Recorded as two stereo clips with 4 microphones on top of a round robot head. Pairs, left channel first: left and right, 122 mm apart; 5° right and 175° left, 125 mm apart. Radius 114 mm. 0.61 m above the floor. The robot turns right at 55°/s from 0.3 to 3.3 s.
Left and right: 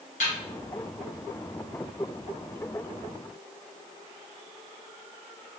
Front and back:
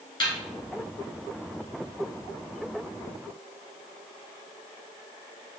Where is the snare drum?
50° left, 1.8 m.